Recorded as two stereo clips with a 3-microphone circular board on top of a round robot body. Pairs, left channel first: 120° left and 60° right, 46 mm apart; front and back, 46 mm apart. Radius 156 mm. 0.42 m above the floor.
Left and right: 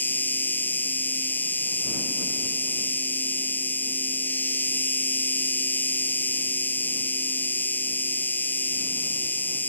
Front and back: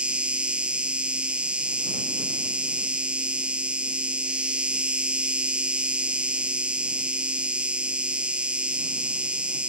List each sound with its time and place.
0.0 s an insect: 125° left